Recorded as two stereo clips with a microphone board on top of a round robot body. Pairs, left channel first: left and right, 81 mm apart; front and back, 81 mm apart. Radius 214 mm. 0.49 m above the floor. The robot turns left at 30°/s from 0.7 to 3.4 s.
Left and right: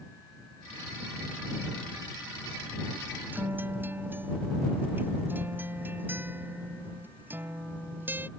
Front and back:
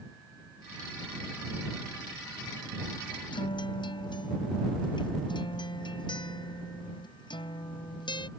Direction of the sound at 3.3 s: 20° right.